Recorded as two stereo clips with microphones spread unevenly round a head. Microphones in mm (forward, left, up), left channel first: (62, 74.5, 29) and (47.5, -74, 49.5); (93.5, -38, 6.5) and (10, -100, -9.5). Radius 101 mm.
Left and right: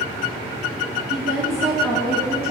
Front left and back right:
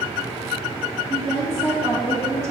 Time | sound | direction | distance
1.1 | a woman speaking | 65° left | 1.8 m